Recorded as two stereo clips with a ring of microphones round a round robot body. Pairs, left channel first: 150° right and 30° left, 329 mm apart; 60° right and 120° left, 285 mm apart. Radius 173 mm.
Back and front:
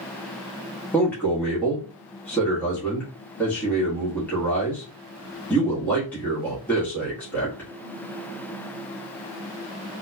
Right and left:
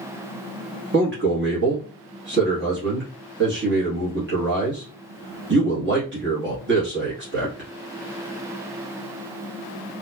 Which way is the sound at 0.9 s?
130° left.